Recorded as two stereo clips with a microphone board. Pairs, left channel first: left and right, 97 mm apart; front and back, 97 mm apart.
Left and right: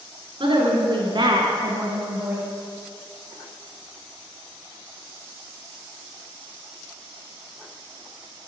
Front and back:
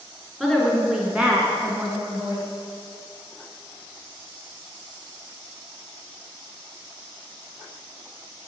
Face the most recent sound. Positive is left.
turn(degrees=-155)